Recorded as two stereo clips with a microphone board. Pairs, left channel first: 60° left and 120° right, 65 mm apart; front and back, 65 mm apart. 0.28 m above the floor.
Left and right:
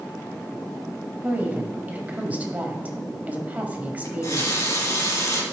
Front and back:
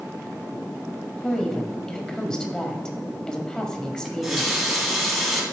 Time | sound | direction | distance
1.2 | a woman speaking | 70° right | 1.1 m
4.0 | a running tap | 95° left | 1.6 m